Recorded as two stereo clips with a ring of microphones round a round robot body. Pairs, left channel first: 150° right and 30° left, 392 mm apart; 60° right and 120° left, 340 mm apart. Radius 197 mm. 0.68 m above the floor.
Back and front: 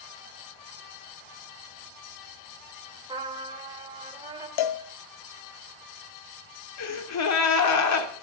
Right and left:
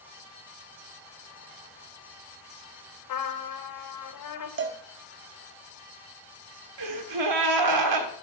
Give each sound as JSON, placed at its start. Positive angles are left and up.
{"t": 3.1, "sound": "a trumpet", "azimuth_deg": -50, "distance_m": 3.0}
{"t": 4.6, "sound": "a cowbell", "azimuth_deg": 180, "distance_m": 0.7}
{"t": 6.8, "sound": "a gasp", "azimuth_deg": 160, "distance_m": 1.5}